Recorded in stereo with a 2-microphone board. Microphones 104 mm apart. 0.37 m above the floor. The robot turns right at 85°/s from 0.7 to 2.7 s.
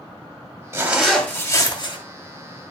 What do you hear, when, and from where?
0.7 s a zipper: 25° right, 2 m; by 2.0 s 80° left, 2 m